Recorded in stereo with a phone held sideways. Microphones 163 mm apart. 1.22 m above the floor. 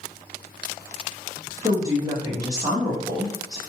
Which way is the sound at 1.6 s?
20° right (ahead or behind).